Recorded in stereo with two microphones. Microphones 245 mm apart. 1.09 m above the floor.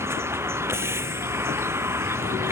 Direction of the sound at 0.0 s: 10° right (ahead or behind).